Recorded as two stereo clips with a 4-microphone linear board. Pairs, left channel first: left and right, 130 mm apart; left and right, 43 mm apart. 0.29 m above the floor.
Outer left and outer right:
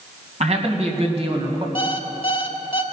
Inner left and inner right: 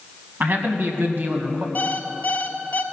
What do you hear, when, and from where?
0.4 s a man speaking: 55° right (ahead or behind), 2.0 m; by 1.6 s 45° right (ahead or behind), 1.6 m
1.8 s an alarm clock: 45° left (ahead or behind), 1.0 m